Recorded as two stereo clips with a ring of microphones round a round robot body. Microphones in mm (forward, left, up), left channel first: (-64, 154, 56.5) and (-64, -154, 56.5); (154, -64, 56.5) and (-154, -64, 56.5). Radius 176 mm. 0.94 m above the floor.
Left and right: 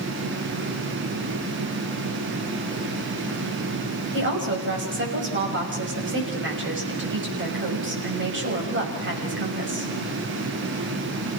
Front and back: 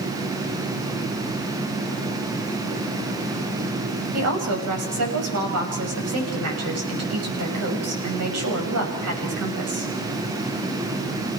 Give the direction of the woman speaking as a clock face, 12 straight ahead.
5 o'clock.